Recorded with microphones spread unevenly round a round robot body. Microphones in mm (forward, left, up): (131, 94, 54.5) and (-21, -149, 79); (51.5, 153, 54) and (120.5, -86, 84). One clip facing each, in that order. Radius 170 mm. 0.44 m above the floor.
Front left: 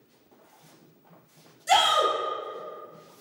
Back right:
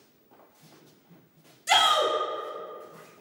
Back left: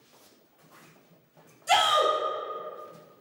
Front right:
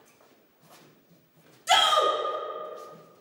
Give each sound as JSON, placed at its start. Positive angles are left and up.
{"t": 1.7, "sound": "a shout", "azimuth_deg": -65, "distance_m": 1.0}